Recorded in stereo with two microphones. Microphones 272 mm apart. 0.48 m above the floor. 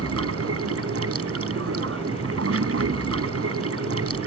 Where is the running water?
60° right (ahead or behind).